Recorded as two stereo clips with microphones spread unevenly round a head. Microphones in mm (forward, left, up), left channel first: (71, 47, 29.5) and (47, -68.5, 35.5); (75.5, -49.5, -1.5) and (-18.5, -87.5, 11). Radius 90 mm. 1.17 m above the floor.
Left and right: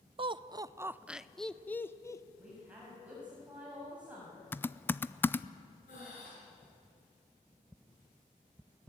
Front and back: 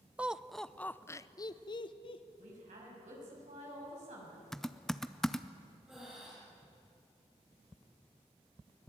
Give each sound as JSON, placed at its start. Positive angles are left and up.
{"t": 0.2, "sound": "laughter", "azimuth_deg": -75, "distance_m": 0.8}
{"t": 2.4, "sound": "a woman speaking", "azimuth_deg": 175, "distance_m": 7.0}
{"t": 4.5, "sound": "typing on a keyboard", "azimuth_deg": 80, "distance_m": 0.5}
{"t": 5.9, "sound": "breathing", "azimuth_deg": 115, "distance_m": 6.5}